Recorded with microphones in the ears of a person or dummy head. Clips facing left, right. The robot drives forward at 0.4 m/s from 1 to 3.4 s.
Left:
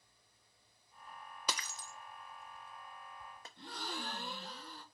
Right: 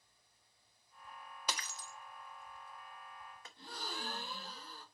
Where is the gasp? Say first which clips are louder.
Left 2 dB; 50° left (ahead or behind), 1.8 m.